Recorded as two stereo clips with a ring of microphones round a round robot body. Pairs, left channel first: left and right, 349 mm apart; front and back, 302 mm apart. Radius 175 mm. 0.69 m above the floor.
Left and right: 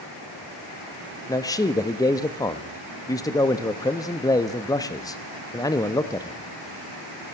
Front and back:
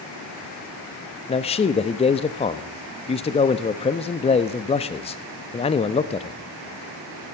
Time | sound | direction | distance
1.3 | a man speaking | 30° left | 0.5 m